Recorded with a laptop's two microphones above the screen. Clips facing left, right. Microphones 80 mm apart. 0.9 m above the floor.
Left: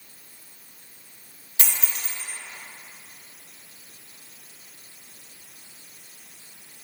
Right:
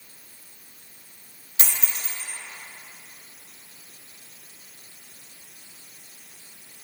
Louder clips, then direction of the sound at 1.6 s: Even; 30° right (ahead or behind).